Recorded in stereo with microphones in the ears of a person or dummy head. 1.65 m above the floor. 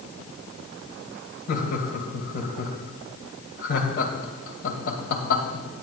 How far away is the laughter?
About 2 m.